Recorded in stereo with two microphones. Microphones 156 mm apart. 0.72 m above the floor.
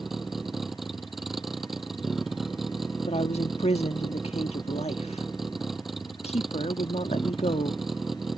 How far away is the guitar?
No guitar in this recording.